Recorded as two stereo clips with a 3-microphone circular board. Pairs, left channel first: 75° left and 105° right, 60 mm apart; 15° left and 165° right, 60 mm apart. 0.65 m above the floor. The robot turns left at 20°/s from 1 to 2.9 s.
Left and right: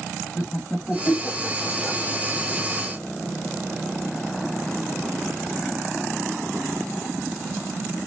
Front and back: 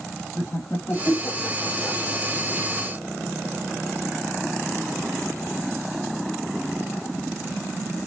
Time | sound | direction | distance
0.3 | laughter | 5° left | 1.4 m